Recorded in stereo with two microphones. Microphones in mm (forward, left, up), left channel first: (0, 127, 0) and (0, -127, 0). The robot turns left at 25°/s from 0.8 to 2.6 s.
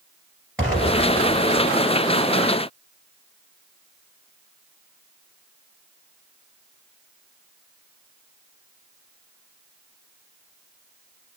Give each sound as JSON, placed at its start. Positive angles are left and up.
{"t": 0.6, "sound": "an explosion", "side_deg": 5, "distance_m": 2.0}